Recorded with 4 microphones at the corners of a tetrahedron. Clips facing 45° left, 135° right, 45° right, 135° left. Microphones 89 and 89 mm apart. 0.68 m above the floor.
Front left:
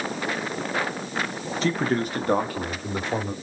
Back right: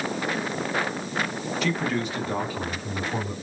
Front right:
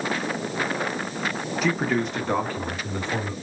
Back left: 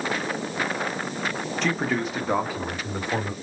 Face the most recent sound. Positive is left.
turn(degrees=60)